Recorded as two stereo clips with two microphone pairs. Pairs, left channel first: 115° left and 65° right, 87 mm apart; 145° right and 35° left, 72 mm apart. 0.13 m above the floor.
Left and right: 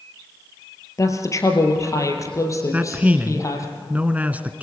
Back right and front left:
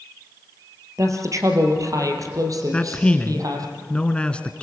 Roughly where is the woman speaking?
Left.